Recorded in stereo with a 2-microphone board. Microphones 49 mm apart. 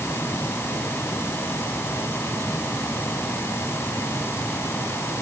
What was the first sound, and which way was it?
Only background noise.